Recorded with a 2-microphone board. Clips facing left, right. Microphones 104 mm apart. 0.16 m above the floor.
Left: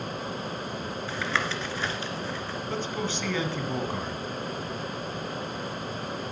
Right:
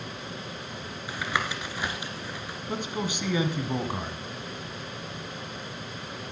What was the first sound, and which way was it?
Tapping, 15° right (ahead or behind).